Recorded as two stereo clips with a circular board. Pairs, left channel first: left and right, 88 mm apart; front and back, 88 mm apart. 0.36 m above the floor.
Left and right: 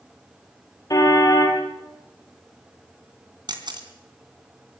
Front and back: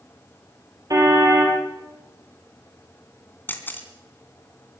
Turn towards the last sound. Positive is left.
turn(degrees=-65)